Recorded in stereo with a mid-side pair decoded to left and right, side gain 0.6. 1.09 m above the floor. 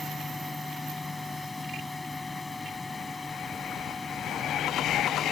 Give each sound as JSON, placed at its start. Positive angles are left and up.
{"t": 0.0, "sound": "a fan", "azimuth_deg": 10}